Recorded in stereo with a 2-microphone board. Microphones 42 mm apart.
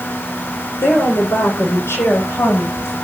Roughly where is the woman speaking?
Left.